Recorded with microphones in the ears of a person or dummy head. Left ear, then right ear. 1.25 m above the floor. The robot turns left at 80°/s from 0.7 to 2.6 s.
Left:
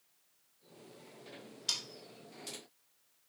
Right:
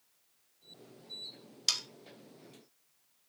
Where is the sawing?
80° right, 1.9 m; by 1.8 s 85° right, 1.9 m.